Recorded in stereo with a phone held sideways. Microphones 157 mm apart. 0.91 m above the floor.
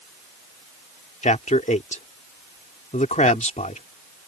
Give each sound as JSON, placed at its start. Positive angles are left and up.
{"t": 1.2, "sound": "a man speaking", "side_deg": 50}